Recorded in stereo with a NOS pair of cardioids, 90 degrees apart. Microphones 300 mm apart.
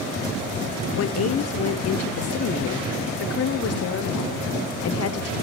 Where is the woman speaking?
50° left, 0.9 m.